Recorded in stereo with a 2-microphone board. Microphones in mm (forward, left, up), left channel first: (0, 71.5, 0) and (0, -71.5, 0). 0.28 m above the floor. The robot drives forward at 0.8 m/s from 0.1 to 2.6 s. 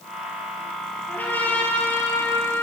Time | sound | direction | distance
1.1 | a trumpet | 10° left (ahead or behind) | 5.5 m